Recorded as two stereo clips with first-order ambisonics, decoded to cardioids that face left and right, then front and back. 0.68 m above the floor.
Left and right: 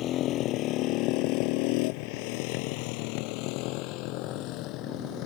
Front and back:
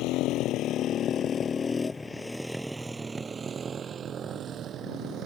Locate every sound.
0.0 s a motorcycle: 40° left; by 5.3 s 130° left